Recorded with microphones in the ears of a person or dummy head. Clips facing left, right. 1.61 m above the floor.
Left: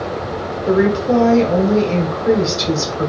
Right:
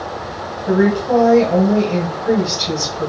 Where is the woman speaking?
80° left, 1.0 m.